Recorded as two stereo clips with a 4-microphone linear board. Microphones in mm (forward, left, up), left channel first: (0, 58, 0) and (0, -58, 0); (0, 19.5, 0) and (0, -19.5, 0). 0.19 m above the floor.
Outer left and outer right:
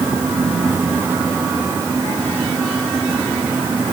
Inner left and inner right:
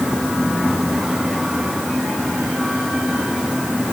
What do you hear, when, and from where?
Only background noise.